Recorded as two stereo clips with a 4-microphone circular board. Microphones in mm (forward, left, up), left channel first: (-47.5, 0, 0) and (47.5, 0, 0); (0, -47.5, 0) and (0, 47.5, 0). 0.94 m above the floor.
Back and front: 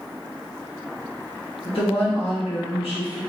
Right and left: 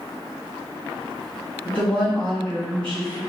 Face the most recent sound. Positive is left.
turn(degrees=-170)